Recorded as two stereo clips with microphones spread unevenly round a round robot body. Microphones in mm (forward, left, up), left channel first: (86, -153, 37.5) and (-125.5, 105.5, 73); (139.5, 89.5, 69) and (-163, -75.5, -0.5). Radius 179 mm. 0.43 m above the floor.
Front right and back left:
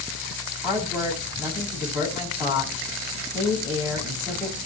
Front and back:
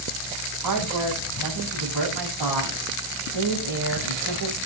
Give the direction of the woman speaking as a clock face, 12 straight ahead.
5 o'clock.